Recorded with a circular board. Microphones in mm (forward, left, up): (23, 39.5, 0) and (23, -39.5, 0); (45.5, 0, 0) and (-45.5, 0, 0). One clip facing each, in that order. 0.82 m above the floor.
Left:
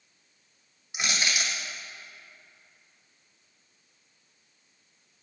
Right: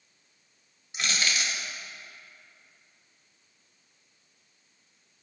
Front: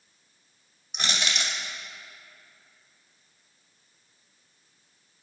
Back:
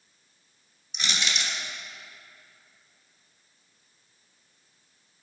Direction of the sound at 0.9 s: 20° left.